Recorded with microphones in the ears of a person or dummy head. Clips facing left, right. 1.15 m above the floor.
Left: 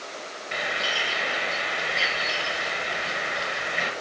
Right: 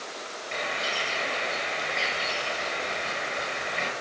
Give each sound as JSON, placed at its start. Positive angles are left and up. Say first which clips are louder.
{"t": 0.5, "sound": "a bird", "louder": "left 1 dB", "side_deg": 10, "distance_m": 1.1}